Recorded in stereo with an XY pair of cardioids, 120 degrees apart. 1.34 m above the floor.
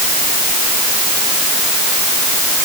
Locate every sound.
Only background noise.